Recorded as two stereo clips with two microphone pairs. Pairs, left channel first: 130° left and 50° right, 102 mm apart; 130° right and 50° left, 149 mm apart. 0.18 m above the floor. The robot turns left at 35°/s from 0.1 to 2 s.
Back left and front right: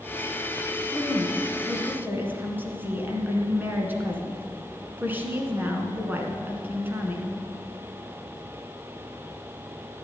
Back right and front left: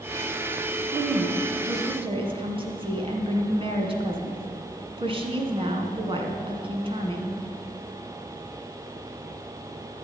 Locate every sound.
0.9 s a woman speaking: 55° left, 2 m; by 7.3 s 15° left, 2 m